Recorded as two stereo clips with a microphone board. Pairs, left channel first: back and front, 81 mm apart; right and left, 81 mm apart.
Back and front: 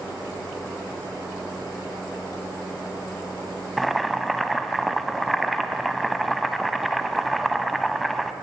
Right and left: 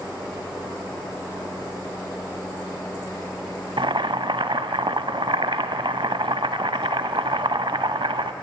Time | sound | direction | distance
3.8 | boiling | 90° left | 0.5 m